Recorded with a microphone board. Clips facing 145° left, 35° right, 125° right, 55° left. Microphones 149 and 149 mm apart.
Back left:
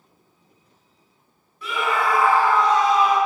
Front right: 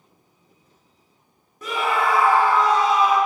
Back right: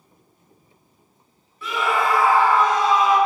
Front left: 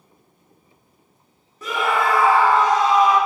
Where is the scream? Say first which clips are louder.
Front right 1 dB, front left 1 dB; 10° left, 0.8 m; by 3.2 s 50° left, 2 m.